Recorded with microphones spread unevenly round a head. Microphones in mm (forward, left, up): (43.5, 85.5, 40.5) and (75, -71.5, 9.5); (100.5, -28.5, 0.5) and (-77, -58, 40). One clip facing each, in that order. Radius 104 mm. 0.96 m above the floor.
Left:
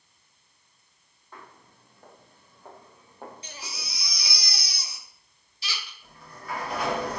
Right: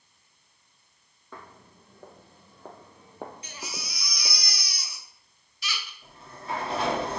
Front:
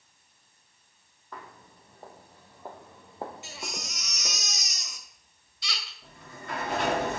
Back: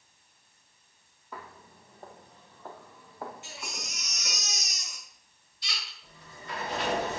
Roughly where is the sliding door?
Ahead.